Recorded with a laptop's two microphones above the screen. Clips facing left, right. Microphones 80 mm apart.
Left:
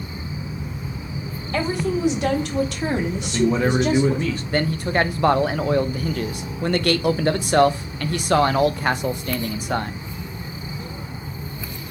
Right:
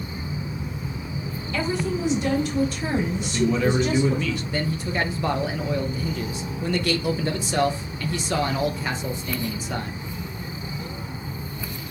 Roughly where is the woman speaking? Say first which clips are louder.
Left 3 dB; left.